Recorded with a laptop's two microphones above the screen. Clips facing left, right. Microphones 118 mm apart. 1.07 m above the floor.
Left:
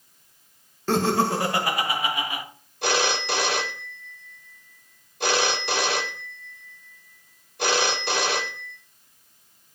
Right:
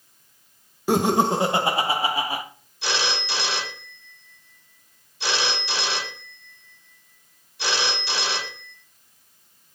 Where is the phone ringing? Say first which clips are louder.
Left 4 dB; 55° left (ahead or behind), 1.5 m.